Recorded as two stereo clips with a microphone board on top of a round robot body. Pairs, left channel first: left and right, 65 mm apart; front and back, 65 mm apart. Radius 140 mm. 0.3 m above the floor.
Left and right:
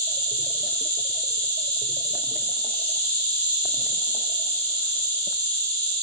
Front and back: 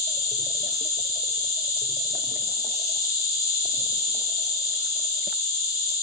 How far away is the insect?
About 1.2 m.